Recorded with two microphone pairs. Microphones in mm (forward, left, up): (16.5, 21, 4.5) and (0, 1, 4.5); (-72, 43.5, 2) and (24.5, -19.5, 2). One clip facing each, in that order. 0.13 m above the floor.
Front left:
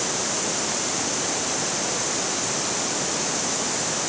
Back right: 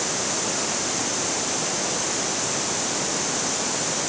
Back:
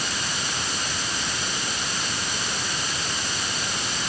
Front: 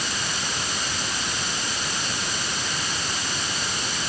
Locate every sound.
Only background noise.